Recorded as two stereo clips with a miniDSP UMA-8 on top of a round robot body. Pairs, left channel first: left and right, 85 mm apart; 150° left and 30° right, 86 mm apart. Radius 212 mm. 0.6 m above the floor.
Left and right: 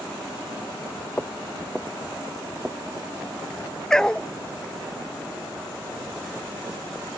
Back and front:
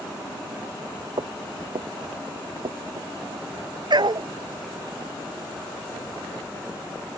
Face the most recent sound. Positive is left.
turn(degrees=10)